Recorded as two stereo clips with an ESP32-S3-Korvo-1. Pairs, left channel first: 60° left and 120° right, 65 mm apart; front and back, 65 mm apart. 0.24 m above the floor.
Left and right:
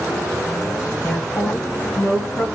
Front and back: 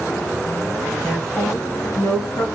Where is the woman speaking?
90° left, 1.3 m; by 2.5 s 10° left, 2 m.